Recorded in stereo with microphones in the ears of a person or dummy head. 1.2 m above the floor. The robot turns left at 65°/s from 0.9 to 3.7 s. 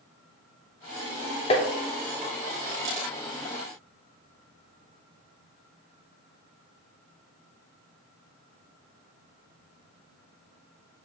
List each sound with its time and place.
1.5 s tapping: 20° left (ahead or behind), 0.6 m; by 1.7 s 30° left (ahead or behind), 0.6 m